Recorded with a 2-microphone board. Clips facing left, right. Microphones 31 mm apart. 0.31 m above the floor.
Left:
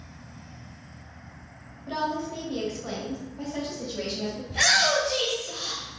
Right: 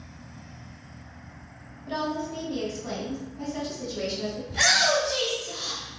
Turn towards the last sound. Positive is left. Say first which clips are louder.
# even
turn(degrees=5)  # may be behind; listen again after turning